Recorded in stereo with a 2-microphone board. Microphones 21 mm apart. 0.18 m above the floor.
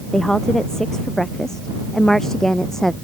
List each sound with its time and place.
0.1 s a woman speaking: 25° left (ahead or behind); by 2.9 s 20° left (ahead or behind)